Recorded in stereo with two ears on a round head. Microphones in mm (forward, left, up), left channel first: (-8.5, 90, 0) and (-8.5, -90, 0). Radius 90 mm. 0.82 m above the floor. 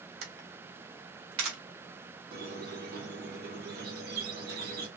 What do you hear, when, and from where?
0.2 s a camera shutter: 75° right (ahead or behind), 1.1 m
2.3 s a squeak: 55° right (ahead or behind), 1.0 m